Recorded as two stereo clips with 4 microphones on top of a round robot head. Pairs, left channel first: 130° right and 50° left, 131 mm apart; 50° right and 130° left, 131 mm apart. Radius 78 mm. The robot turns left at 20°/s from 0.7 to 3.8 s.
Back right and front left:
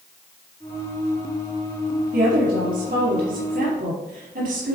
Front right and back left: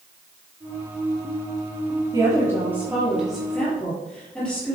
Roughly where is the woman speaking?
Ahead left.